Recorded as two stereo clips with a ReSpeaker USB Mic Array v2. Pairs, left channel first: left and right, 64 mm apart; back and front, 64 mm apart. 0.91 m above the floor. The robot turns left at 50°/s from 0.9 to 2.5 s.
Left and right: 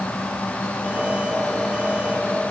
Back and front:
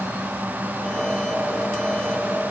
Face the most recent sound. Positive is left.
No sound to turn to.